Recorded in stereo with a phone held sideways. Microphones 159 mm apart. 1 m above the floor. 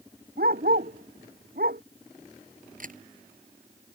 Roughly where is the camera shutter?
Right.